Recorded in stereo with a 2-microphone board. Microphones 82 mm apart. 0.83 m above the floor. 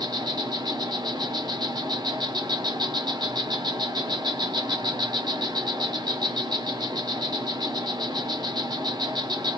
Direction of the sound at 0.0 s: 65° right (ahead or behind).